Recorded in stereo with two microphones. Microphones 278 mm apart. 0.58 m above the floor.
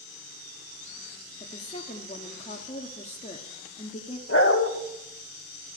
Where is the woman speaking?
25° left (ahead or behind), 1.3 m.